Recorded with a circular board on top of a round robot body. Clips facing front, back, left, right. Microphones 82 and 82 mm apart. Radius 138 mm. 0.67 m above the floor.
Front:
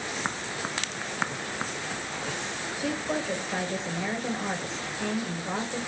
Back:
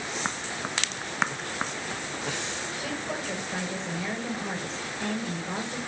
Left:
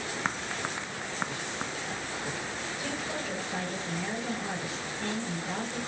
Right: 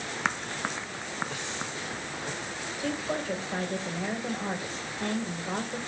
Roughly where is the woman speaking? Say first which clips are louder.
Front 6 dB, right 6 dB; ahead right.